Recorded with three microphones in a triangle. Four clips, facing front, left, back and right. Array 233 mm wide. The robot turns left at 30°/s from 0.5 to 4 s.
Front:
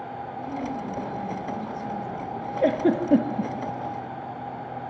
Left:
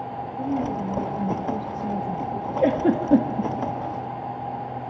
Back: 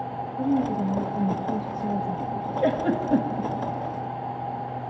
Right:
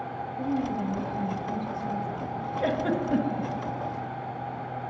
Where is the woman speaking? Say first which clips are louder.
Left 3 dB, back 9 dB; 175° left, 1.8 m; by 2.5 s 115° left, 1.8 m.